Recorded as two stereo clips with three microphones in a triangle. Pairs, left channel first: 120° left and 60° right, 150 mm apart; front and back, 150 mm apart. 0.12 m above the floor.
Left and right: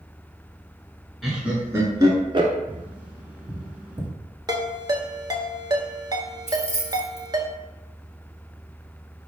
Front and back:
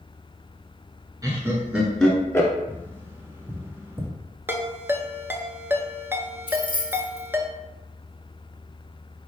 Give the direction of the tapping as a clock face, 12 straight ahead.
4 o'clock.